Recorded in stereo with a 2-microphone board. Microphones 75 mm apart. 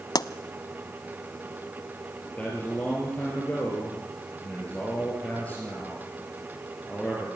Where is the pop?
60° left (ahead or behind), 0.6 m.